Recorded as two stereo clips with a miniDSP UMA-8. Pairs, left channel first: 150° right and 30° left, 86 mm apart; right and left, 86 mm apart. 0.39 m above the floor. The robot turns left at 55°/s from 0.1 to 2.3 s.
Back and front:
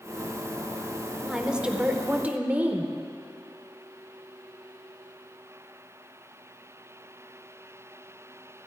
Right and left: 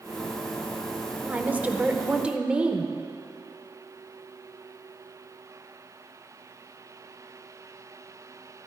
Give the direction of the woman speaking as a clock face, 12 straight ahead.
9 o'clock.